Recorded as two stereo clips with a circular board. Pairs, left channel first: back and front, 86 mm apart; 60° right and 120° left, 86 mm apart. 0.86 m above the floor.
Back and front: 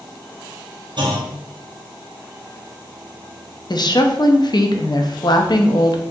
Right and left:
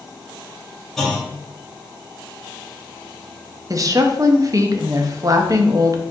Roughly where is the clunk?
Ahead left.